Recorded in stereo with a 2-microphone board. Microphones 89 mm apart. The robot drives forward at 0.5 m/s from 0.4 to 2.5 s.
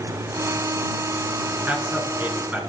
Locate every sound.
1.7 s a man speaking: 20° right (ahead or behind), 4.5 m